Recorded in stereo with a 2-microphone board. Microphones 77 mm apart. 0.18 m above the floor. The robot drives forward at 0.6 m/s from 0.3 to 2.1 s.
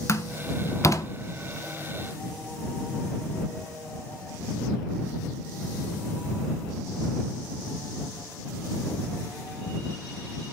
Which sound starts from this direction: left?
A door slam, at 0.1 s.